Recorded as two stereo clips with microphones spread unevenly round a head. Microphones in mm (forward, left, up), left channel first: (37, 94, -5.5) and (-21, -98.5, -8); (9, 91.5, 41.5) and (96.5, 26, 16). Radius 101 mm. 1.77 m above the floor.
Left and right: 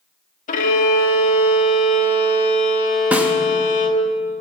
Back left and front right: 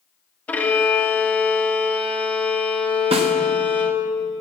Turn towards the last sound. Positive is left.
turn(degrees=-25)